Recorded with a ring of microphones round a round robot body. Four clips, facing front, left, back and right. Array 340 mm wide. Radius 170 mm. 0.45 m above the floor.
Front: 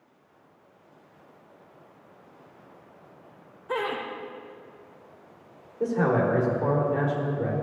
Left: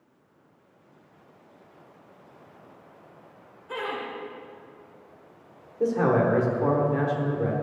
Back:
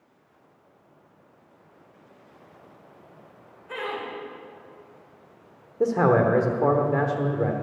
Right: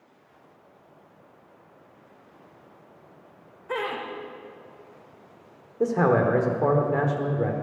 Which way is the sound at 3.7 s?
40° right.